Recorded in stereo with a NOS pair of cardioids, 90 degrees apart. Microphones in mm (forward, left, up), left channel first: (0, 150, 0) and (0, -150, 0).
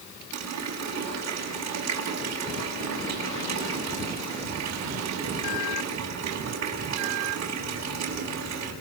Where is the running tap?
65° right, 9 m.